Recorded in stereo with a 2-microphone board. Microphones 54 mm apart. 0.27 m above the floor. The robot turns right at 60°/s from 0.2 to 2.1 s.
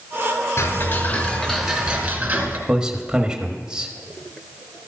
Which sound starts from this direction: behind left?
Ticking, at 0.6 s.